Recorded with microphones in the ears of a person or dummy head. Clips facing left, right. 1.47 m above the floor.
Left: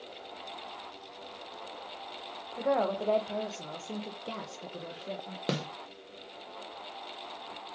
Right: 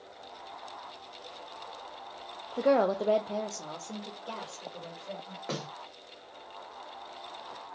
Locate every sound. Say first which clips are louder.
2.6 s a woman speaking: right 4 dB; 50° right (ahead or behind), 0.6 m; by 5.4 s 45° left (ahead or behind), 1.4 m
5.5 s a snare drum: left 4 dB; 50° left (ahead or behind), 0.6 m